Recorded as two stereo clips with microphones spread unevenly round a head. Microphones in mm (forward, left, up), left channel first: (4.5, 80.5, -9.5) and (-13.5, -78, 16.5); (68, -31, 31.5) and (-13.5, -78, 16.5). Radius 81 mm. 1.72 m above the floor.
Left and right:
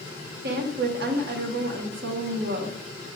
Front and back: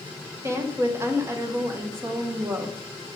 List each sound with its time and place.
0.4 s a woman speaking: 85° right, 1.4 m